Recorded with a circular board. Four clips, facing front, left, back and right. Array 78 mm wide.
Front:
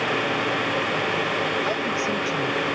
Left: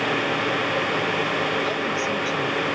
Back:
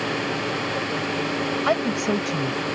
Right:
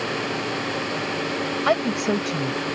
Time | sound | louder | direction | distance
1.7 | a woman speaking | right 3 dB, back 3 dB | 120° right | ?